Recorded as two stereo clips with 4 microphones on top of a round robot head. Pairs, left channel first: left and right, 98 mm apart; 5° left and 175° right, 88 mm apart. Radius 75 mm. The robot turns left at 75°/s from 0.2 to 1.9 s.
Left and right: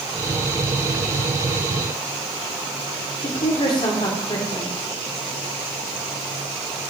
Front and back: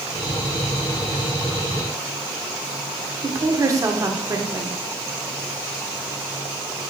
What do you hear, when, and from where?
3.2 s a woman speaking: 130° left, 1.4 m